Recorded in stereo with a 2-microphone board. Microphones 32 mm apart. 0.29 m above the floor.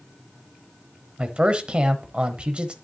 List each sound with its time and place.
1.2 s a man speaking: 30° right (ahead or behind), 1.0 m